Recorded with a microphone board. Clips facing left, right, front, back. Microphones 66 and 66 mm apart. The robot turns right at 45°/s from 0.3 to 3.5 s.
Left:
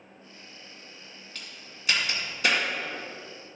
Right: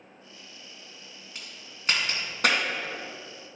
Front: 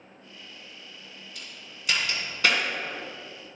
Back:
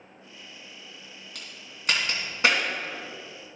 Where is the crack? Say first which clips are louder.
Even, even; 165° right, 2 m; by 2.6 s 105° right, 2 m.